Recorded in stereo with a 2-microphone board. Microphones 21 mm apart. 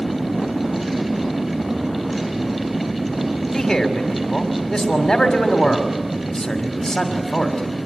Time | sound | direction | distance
3.5 | a man speaking | 30° left (ahead or behind) | 2.5 m